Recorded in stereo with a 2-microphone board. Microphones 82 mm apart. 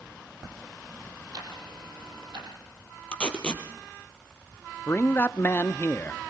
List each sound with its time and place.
1.3 s ticking: 65° right (ahead or behind), 6 m
3.1 s tape being pulled: 15° left (ahead or behind), 3 m
4.9 s a man speaking: 25° left (ahead or behind), 0.7 m